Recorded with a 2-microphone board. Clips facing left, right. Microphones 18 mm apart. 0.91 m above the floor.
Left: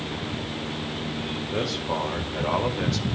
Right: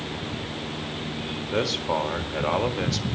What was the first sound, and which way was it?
A man speaking, 45° right (ahead or behind).